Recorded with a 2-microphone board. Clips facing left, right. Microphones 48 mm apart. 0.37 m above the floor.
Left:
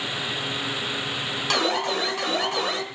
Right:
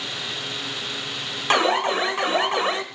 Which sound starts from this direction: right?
An alarm, at 1.5 s.